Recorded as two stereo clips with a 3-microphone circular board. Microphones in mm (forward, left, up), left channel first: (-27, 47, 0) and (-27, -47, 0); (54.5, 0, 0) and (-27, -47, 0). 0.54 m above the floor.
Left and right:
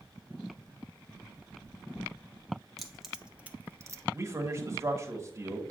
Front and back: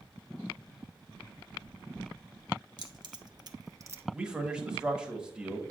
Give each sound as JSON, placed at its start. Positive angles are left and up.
{"t": 2.8, "sound": "keys jangling", "azimuth_deg": 180, "distance_m": 0.9}
{"t": 4.1, "sound": "a man speaking", "azimuth_deg": -80, "distance_m": 1.2}